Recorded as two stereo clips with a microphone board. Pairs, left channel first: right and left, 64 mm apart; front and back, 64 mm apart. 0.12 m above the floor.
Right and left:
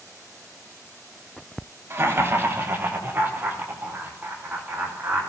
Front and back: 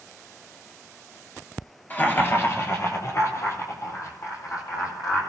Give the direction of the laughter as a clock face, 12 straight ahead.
10 o'clock.